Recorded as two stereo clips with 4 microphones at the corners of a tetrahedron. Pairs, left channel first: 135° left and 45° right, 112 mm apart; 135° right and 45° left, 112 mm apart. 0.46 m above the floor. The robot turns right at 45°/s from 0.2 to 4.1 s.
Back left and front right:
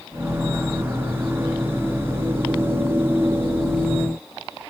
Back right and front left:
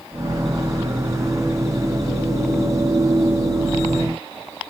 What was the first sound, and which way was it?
Only background noise.